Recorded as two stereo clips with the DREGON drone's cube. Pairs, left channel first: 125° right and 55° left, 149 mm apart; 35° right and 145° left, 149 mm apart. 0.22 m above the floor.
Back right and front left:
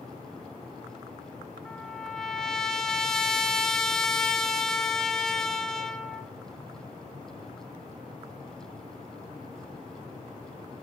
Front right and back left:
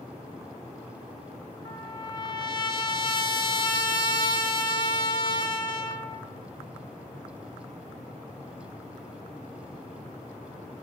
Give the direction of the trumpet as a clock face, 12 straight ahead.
1 o'clock.